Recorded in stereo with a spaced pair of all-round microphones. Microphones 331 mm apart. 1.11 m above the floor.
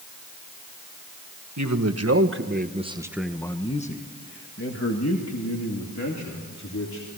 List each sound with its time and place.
1.6 s a man speaking: 55° right (ahead or behind), 1.4 m; by 7.1 s 55° left (ahead or behind), 3 m